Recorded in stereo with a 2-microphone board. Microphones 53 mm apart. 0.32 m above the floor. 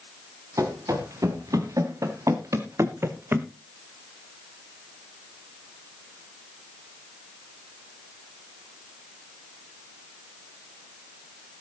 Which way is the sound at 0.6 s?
85° right.